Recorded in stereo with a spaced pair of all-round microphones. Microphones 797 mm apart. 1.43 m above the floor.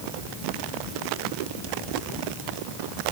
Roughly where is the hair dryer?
I don't hear a hair dryer.